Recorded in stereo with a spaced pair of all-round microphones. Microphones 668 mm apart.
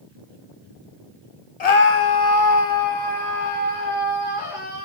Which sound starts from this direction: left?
A scream, at 1.6 s.